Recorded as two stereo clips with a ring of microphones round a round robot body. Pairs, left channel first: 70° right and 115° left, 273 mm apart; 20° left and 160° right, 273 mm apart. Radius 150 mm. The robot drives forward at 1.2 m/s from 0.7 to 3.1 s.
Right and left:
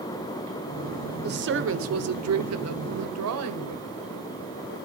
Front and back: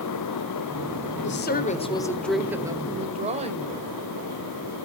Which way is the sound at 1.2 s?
65° left.